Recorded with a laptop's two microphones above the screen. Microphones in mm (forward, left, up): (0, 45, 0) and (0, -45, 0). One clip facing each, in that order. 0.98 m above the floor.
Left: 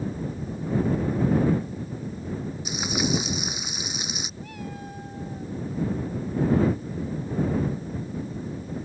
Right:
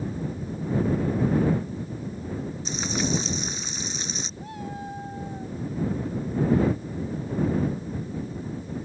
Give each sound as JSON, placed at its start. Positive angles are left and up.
{"t": 2.6, "sound": "frying", "side_deg": 10}
{"t": 4.4, "sound": "a cat meowing", "side_deg": -25}